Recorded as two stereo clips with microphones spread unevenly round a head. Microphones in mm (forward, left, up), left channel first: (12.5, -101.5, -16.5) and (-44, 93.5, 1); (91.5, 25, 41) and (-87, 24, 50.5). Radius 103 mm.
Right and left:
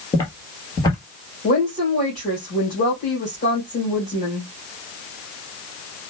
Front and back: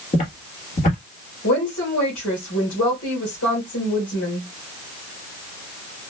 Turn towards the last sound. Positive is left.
turn(degrees=-15)